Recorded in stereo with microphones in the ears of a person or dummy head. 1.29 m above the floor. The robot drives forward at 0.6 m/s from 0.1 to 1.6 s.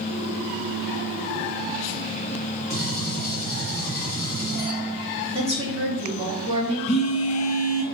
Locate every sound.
2.7 s a gunshot: 10° left (ahead or behind), 2.0 m
5.3 s a woman speaking: 20° right (ahead or behind), 1.4 m
6.9 s a phone buzzing: 35° left (ahead or behind), 0.7 m